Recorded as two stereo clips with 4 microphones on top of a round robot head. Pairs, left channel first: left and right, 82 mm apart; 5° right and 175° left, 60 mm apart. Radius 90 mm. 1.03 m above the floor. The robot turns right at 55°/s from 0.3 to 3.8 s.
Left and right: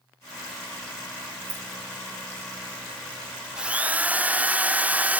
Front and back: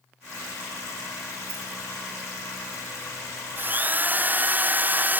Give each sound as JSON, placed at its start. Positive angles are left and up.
{"t": 1.5, "sound": "a rattle", "azimuth_deg": -165, "distance_m": 6.0}
{"t": 3.6, "sound": "a drill", "azimuth_deg": -165, "distance_m": 0.9}